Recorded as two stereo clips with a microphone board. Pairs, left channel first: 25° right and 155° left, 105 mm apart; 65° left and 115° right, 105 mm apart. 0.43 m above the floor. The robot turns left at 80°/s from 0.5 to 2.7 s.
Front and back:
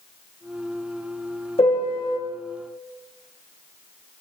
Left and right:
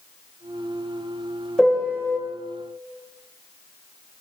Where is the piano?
15° right, 1.4 m; by 2.2 s 60° right, 1.4 m.